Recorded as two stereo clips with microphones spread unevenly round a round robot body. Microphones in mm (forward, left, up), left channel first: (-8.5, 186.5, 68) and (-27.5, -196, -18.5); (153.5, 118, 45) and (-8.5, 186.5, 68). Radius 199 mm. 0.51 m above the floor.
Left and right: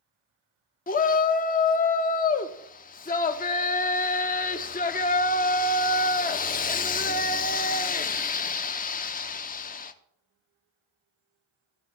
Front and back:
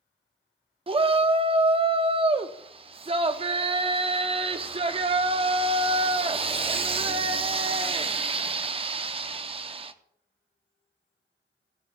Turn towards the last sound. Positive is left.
turn(degrees=155)